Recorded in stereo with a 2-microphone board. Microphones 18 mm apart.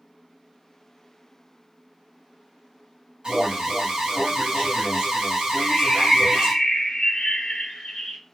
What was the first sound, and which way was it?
An alarm, 45° right (ahead or behind).